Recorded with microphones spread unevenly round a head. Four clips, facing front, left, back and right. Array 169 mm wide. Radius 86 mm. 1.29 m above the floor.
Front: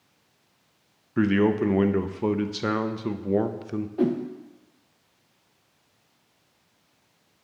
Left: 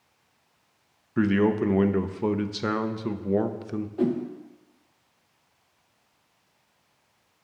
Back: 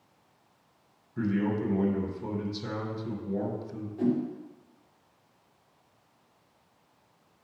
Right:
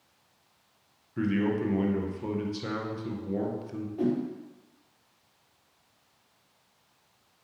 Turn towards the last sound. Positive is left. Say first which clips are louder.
# left 2 dB, front 3 dB
turn(degrees=15)